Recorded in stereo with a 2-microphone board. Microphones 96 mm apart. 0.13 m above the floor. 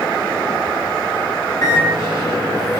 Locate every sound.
1.6 s a microwave: 40° left (ahead or behind), 1.1 m